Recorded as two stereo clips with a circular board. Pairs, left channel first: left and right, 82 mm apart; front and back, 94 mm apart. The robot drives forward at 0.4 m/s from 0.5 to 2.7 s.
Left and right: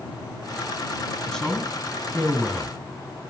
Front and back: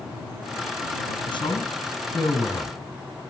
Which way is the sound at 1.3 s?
10° left.